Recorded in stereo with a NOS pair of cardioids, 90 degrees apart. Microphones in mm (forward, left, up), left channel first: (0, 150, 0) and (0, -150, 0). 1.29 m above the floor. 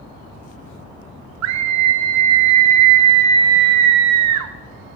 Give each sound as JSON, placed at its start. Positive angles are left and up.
{"t": 1.4, "sound": "a scream", "azimuth_deg": -70, "distance_m": 0.5}